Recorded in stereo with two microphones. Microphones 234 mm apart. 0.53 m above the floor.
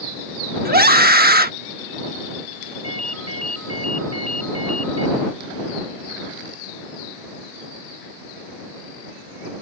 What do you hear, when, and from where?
0.7 s a scream: 40° right (ahead or behind)
2.8 s a ringtone: 85° right